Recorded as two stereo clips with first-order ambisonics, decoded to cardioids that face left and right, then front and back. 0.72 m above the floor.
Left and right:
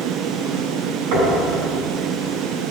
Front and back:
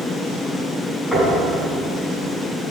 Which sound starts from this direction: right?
Knocking, at 1.1 s.